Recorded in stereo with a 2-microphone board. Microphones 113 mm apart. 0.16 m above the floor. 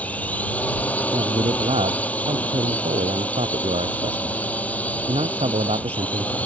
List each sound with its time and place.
0.0 s a drone: 15° left (ahead or behind)
1.1 s a man speaking: 75° right (ahead or behind)